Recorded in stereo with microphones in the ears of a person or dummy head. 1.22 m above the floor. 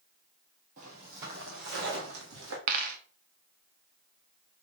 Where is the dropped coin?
45° right (ahead or behind), 1.0 m.